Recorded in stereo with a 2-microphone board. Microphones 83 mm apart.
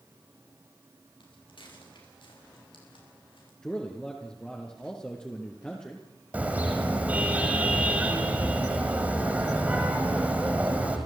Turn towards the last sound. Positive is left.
turn(degrees=-20)  # may be behind; listen again after turning